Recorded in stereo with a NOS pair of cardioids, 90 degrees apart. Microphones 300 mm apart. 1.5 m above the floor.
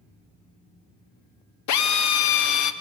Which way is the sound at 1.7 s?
70° left.